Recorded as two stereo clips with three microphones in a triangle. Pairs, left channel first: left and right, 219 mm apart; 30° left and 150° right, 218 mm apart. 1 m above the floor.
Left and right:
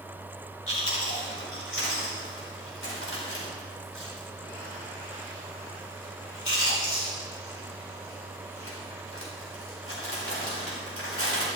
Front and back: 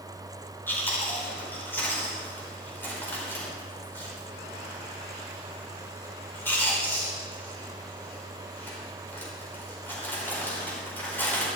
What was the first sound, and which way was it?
Chewing, 110° left.